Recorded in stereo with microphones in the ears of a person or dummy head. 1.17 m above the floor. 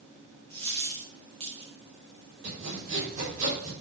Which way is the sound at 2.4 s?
45° right (ahead or behind).